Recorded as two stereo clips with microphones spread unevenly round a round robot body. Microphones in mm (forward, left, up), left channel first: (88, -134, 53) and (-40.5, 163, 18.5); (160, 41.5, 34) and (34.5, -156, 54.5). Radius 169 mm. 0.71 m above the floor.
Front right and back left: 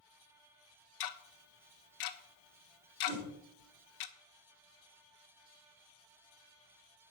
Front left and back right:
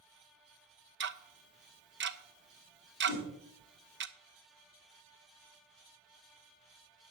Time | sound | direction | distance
1.0 | ticking | 80° right | 1.1 m
3.1 | a whoosh | 90° left | 8 m